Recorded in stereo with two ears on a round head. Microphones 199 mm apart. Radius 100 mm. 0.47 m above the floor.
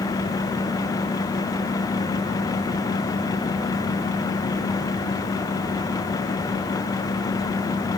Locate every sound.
Only background noise.